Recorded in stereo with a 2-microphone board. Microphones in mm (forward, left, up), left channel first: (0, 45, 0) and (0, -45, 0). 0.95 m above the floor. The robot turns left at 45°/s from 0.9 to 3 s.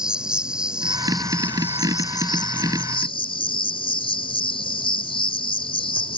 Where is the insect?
170° right; by 6.2 s 95° left.